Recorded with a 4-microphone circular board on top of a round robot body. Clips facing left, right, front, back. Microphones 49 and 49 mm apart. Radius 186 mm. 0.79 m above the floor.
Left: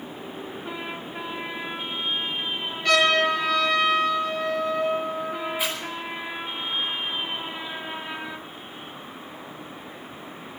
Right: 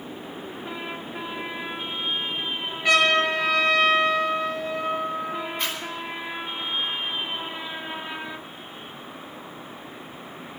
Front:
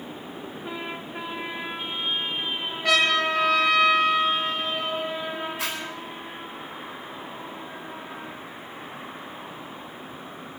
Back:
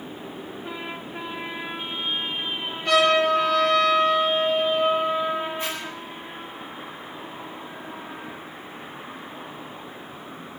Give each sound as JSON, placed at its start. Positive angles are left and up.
{"t": 2.8, "sound": "a trumpet", "azimuth_deg": -15, "distance_m": 8.0}
{"t": 5.6, "sound": "a zipper", "azimuth_deg": 10, "distance_m": 4.5}